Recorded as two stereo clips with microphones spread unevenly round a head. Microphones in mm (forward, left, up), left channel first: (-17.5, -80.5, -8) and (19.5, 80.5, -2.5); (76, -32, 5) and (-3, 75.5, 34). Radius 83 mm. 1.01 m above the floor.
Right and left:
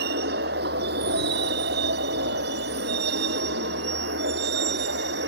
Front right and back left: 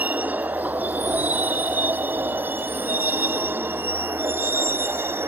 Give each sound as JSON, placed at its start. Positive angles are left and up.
{"t": 0.0, "sound": "a vehicle", "azimuth_deg": 50}